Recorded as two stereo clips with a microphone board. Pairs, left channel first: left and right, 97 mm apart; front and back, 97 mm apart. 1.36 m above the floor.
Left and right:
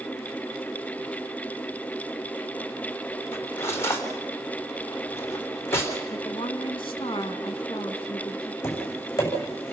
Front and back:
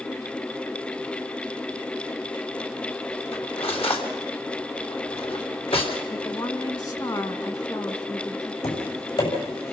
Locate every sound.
3.3 s cutlery clinking: 25° left, 3 m
6.1 s a woman speaking: 50° left, 2 m
8.6 s tapping: 25° left, 7.5 m